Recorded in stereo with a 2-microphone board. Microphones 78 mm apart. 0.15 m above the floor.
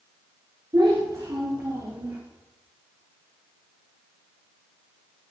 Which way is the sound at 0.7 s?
70° right (ahead or behind).